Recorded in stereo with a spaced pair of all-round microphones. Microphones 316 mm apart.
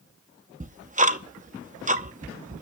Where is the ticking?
25° right (ahead or behind), 0.7 m.